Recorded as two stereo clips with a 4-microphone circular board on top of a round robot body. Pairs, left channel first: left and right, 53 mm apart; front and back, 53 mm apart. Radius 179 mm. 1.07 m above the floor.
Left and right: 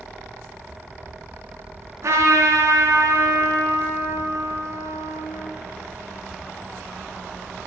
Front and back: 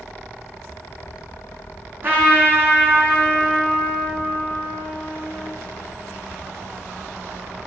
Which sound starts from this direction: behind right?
A trumpet, at 2.0 s.